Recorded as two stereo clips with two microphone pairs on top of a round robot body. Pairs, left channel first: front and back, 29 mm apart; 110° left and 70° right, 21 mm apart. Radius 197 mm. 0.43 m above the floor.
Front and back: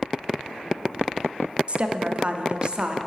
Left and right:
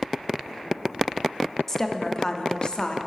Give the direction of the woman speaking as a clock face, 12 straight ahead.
6 o'clock.